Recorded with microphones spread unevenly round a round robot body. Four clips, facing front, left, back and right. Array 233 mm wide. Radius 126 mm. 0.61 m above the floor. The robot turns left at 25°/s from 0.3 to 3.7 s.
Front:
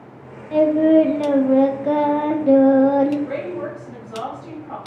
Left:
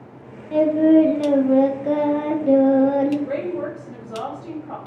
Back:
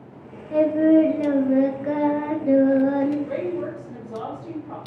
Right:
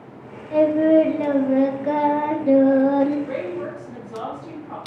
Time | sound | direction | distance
0.5 | singing | 65° left | 0.5 m
3.3 | a woman speaking | 115° left | 2 m